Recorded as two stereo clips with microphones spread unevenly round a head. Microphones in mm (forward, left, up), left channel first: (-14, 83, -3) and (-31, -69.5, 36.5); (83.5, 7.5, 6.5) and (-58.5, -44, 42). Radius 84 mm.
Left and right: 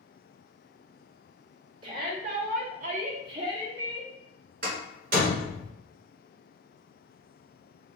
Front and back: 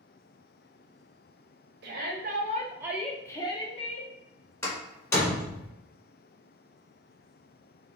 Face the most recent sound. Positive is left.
turn(degrees=-55)